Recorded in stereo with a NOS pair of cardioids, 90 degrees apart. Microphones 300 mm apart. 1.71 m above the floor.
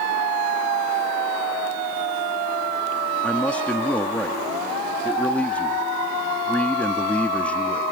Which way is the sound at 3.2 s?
5° left.